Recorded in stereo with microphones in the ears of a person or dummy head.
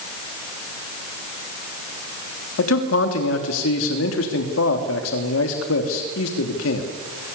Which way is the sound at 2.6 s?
80° left.